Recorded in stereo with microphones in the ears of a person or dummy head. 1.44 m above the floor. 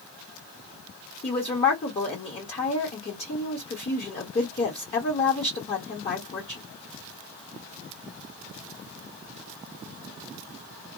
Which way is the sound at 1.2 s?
30° left (ahead or behind).